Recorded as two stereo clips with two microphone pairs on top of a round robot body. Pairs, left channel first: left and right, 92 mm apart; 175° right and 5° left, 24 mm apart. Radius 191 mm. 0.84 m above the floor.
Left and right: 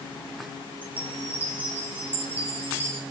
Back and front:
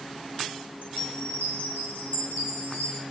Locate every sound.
0.8 s a chime: 160° right, 0.8 m